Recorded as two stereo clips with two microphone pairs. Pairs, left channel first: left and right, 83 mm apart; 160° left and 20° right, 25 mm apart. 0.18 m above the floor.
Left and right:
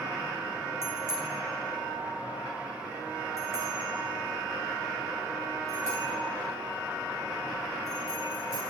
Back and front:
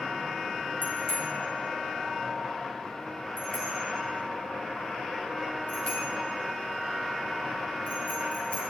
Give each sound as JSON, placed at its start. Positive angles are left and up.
{"t": 0.8, "sound": "a bicycle bell", "azimuth_deg": 150, "distance_m": 8.5}